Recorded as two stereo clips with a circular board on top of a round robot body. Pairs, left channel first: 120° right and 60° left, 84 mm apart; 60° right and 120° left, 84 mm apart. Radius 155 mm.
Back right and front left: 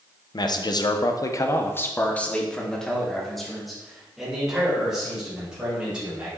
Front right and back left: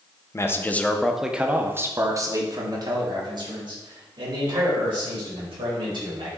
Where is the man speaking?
110° right, 0.9 m; by 6.3 s 140° left, 3.5 m.